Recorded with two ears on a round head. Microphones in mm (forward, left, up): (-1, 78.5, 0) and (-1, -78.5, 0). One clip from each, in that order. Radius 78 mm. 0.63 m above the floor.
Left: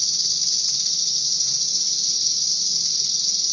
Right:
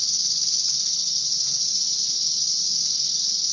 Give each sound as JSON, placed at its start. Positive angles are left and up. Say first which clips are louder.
{"t": 0.0, "sound": "an insect", "louder": "left 2 dB", "side_deg": 10, "distance_m": 3.0}